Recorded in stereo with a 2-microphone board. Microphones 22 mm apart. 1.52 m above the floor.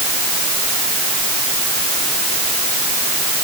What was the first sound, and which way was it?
Only background noise.